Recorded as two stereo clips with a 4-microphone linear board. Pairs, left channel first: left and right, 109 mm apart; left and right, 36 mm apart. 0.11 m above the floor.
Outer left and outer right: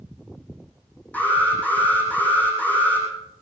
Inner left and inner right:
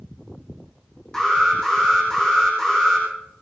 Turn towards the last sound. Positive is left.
turn(degrees=15)  # may be behind; listen again after turning